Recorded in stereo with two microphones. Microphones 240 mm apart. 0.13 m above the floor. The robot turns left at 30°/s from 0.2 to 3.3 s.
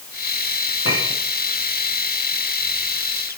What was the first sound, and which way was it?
A clink, 70° left (ahead or behind).